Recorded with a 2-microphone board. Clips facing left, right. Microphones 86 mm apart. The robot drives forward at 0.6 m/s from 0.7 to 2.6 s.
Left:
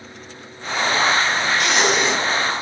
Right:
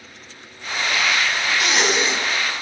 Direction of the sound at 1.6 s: Centre (ahead or behind).